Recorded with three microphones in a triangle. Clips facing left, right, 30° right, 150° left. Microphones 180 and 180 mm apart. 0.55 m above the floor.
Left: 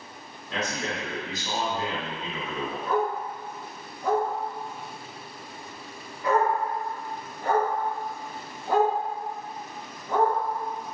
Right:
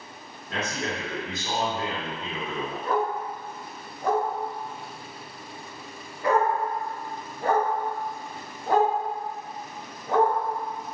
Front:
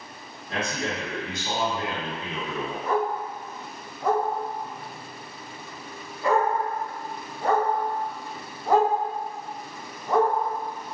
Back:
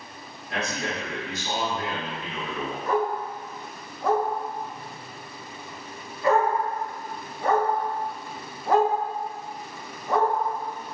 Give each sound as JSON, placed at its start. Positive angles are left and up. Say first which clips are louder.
{"t": 0.5, "sound": "a man speaking", "louder": "even, front 1 dB", "azimuth_deg": -85, "distance_m": 1.8}
{"t": 2.9, "sound": "a dog barking", "louder": "even, back 1 dB", "azimuth_deg": -110, "distance_m": 1.6}